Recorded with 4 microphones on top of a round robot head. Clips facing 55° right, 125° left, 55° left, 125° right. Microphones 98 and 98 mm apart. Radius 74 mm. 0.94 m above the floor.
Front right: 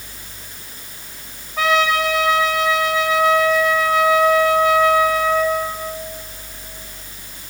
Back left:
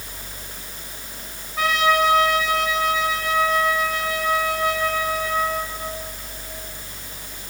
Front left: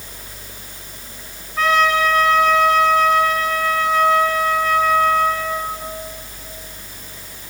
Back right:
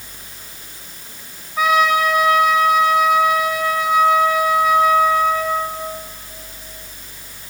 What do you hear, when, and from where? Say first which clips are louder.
1.6 s a trumpet: front right 2 dB, back right 1 dB; 40° right, 2.0 m